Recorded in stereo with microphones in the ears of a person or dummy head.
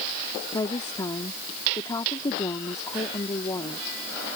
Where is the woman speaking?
20° left (ahead or behind).